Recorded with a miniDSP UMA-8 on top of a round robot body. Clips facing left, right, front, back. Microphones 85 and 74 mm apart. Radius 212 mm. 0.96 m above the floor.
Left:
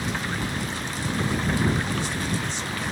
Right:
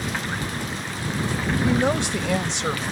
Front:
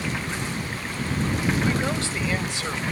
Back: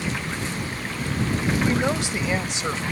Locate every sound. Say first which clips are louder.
1.6 s a woman speaking: right 5 dB, back 2 dB; 110° right; by 2.8 s 115° right